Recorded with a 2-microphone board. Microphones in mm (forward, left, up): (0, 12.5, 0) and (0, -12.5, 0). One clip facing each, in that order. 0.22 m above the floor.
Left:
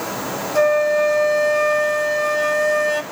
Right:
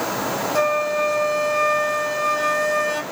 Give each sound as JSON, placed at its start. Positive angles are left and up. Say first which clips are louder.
{"t": 0.6, "sound": "a flute", "louder": "left 6 dB", "side_deg": 0, "distance_m": 1.0}